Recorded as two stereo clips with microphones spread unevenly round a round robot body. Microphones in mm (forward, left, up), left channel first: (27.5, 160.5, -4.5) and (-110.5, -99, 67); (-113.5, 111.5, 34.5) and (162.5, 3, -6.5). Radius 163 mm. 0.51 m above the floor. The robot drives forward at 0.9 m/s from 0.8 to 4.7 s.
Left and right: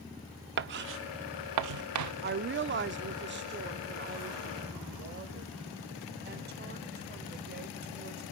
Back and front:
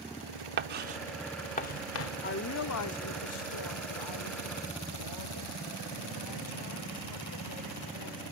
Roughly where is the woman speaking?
Behind.